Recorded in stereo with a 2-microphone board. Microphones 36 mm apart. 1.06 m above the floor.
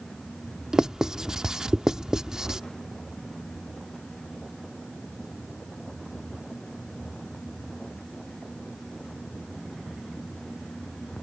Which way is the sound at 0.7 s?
20° right (ahead or behind).